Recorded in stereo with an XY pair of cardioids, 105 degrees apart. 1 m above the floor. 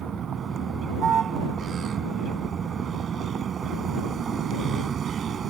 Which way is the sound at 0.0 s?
50° right.